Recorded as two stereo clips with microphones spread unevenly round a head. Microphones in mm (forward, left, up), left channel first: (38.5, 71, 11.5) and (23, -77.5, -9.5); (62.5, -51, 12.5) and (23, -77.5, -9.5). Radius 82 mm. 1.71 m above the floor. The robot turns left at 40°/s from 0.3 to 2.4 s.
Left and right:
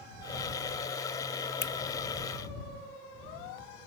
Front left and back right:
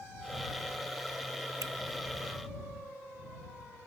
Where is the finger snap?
155° left; by 1.7 s 150° left.